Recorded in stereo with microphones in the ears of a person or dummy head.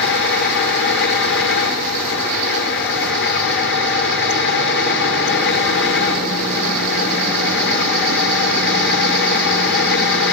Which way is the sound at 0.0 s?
60° left (ahead or behind).